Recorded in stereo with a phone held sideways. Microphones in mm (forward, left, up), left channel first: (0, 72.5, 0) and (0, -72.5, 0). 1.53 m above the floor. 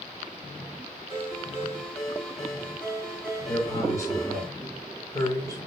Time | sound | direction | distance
1.1 | a ringtone | centre (ahead or behind) | 6 m
3.5 | a man speaking | 20° left (ahead or behind) | 6 m